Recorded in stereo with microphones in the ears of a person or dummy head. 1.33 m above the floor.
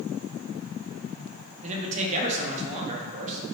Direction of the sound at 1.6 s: 30° right (ahead or behind).